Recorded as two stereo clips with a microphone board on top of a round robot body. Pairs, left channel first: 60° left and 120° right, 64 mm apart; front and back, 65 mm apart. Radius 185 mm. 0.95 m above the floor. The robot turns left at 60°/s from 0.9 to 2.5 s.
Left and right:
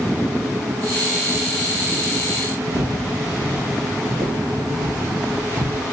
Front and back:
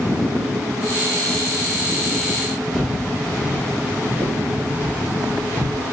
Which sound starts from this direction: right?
Footsteps, at 2.7 s.